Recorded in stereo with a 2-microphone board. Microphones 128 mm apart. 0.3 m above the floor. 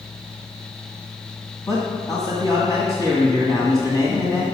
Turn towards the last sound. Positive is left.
turn(degrees=30)  # may be behind; listen again after turning